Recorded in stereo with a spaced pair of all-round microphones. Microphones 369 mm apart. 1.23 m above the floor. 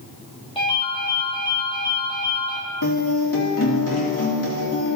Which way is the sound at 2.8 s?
60° left (ahead or behind).